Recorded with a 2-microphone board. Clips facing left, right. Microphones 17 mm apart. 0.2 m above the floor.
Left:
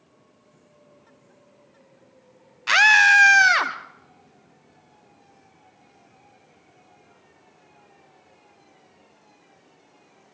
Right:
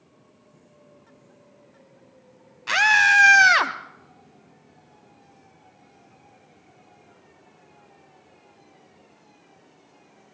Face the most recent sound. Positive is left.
turn(degrees=-15)  # may be behind; listen again after turning